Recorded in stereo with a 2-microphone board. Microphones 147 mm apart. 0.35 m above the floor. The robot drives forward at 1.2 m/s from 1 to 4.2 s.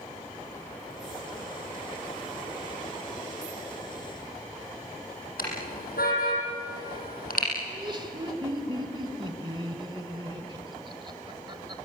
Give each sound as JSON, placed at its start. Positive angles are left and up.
{"t": 5.4, "sound": "a car horn", "side_deg": 80, "distance_m": 7.5}
{"t": 7.7, "sound": "laughter", "side_deg": -35, "distance_m": 1.8}